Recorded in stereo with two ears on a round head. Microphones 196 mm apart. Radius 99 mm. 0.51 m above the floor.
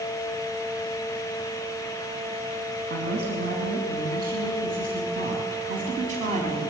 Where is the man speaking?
50° right (ahead or behind), 6 m; by 6.7 s 35° right (ahead or behind), 5 m.